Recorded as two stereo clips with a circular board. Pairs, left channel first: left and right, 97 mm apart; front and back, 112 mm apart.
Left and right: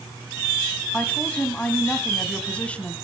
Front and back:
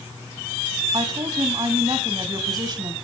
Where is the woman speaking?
160° left, 1.8 m.